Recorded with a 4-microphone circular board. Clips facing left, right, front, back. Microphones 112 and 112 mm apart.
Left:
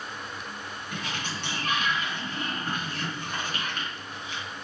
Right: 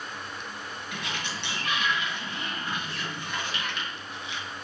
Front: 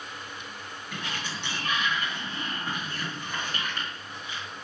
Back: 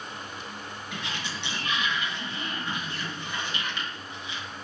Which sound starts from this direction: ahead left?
A sliding door, at 0.9 s.